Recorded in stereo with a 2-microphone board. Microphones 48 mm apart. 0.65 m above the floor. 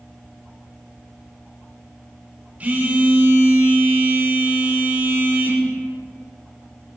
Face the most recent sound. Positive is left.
turn(degrees=-30)  # may be behind; listen again after turning